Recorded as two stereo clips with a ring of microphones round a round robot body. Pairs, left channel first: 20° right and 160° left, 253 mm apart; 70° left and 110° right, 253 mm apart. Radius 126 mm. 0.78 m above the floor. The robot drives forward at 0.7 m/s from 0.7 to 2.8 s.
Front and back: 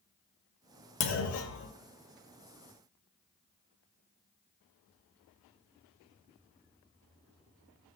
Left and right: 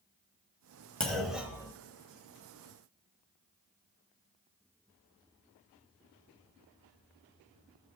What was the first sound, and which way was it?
A clunk, 20° right.